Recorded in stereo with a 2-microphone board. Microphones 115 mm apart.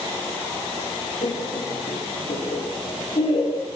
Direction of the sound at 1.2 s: 75° left (ahead or behind).